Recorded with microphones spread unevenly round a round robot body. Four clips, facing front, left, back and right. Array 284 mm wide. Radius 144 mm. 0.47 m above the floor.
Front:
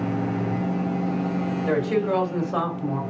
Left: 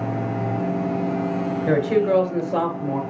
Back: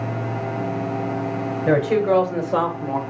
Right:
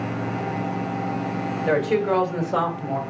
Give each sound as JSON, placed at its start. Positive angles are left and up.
{"t": 1.7, "sound": "a woman speaking", "azimuth_deg": -170, "distance_m": 2.5}